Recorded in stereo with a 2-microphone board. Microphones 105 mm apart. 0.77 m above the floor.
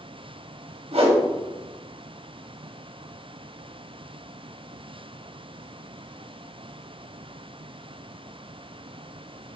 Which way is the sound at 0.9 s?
65° right (ahead or behind).